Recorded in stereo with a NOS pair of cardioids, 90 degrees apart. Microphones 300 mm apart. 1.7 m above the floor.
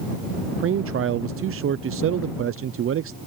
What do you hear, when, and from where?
0.5 s a man speaking: 45° right